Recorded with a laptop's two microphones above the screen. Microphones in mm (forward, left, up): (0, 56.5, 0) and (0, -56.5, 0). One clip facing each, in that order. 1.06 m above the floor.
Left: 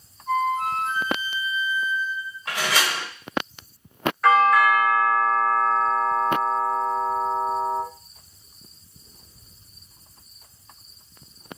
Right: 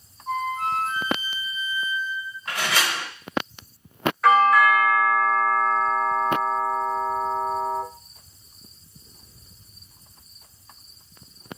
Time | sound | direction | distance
0.3 | a flute | 40° right (ahead or behind) | 0.8 m
2.5 | a door slam | 85° left | 1.1 m
4.2 | a doorbell | centre (ahead or behind) | 0.8 m